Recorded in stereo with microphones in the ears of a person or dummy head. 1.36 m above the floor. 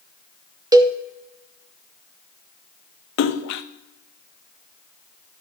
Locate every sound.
0.7 s a cowbell: 20° right (ahead or behind), 0.5 m
3.2 s a splash: 65° left (ahead or behind), 0.7 m